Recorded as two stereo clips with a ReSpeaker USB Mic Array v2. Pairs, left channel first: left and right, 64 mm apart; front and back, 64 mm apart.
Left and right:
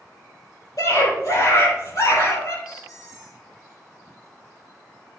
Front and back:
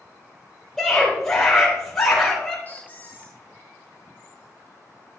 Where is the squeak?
60° left, 2.5 m.